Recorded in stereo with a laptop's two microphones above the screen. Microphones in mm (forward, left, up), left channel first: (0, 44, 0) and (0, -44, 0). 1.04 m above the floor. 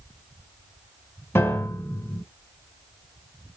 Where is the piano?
25° left (ahead or behind), 1.2 m.